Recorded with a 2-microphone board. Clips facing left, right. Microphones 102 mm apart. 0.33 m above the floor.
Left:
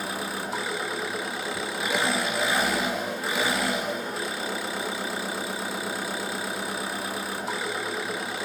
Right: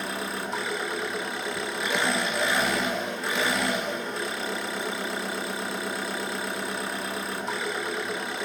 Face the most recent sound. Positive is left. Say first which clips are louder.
# even
turn(degrees=5)  # may be behind; listen again after turning